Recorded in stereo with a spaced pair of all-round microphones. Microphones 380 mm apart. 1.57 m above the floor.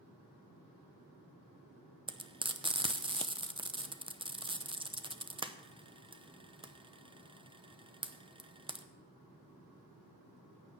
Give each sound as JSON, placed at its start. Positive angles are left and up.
{"t": 2.1, "sound": "frying", "side_deg": -15, "distance_m": 0.7}